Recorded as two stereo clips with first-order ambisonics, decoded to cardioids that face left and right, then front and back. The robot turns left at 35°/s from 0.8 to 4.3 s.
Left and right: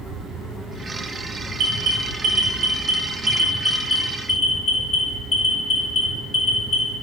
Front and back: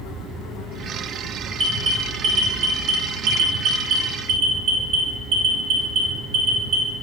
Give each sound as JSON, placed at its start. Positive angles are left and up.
{"t": 1.6, "sound": "an alarm", "azimuth_deg": -115, "distance_m": 1.1}